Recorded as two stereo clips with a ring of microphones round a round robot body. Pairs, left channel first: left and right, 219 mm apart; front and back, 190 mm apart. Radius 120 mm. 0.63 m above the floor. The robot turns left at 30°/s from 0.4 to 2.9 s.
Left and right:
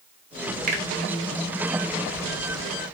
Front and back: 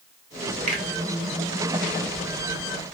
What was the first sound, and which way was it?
A finger snap, 135° right.